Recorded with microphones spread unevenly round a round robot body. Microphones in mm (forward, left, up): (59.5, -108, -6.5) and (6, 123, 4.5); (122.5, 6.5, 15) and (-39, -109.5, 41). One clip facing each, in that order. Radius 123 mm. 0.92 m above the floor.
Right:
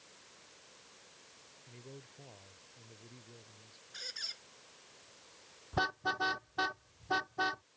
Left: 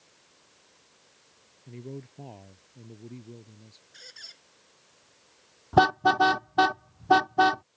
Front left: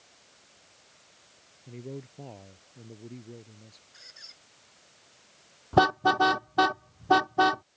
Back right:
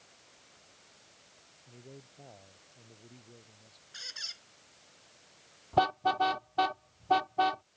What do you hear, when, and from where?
1.7 s a man speaking: 85° left
3.9 s a squeak: 165° right
5.7 s a car horn: 85° left